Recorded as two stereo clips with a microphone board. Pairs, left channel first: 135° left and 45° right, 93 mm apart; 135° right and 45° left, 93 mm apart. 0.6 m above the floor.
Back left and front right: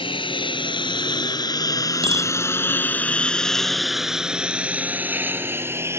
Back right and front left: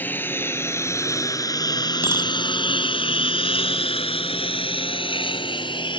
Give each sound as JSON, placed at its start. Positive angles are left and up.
{"t": 0.0, "sound": "a lawn mower", "azimuth_deg": 155}
{"t": 2.0, "sound": "a bicycle bell", "azimuth_deg": -20}